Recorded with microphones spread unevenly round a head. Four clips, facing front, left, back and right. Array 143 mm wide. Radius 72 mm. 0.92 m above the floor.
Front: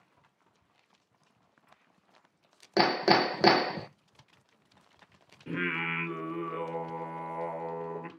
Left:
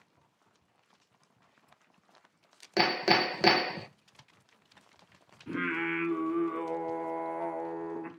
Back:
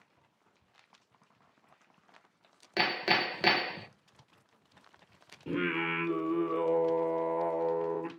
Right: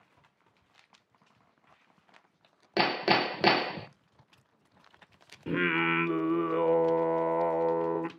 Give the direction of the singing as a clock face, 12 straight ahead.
4 o'clock.